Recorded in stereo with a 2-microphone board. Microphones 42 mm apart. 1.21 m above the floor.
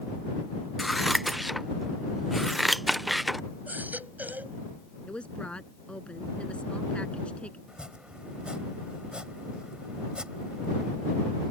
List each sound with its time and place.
0.8 s scissors: centre (ahead or behind)
3.7 s a baby crying: 45° right (ahead or behind)
5.1 s a woman speaking: 25° left (ahead or behind)
7.7 s chopping: 25° right (ahead or behind)